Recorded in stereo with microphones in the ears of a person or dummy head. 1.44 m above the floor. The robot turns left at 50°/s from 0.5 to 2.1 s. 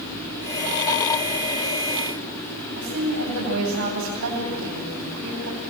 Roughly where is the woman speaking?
Right.